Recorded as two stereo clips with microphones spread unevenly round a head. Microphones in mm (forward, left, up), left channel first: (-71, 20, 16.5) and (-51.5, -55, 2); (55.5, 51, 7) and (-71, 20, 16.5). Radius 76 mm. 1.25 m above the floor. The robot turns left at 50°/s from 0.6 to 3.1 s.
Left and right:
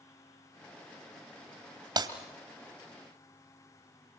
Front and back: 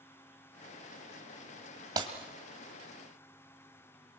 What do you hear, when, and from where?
2.0 s breaking glass: 105° right, 2.5 m; by 2.1 s 110° right, 2.5 m